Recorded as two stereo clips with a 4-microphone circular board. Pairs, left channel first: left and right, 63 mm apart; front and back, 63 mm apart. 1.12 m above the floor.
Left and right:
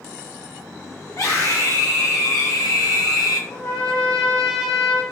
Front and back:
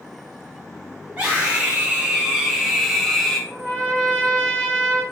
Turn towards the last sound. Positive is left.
turn(degrees=100)